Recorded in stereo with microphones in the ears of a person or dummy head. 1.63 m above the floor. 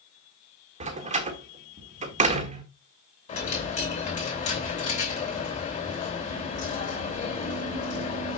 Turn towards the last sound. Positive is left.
turn(degrees=40)  # may be behind; listen again after turning